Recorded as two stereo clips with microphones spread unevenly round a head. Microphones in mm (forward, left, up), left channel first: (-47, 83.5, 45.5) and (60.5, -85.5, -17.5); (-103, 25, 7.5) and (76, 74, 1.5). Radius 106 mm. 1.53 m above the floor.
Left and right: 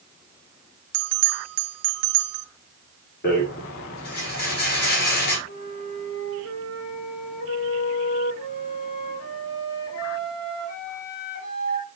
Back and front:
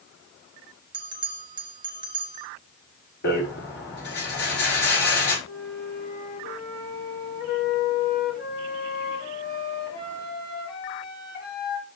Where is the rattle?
170° left, 5.5 m.